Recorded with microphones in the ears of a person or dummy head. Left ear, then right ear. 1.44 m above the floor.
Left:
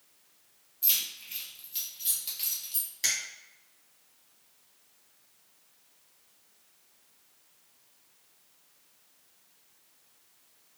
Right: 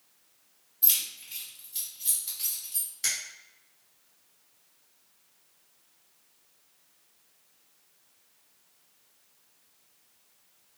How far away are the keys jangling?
About 1.1 m.